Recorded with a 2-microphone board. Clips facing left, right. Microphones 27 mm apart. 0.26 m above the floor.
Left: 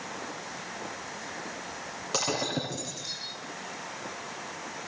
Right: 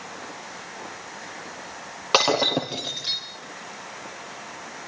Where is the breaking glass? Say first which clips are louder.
Right 10 dB; 50° right (ahead or behind), 4 m.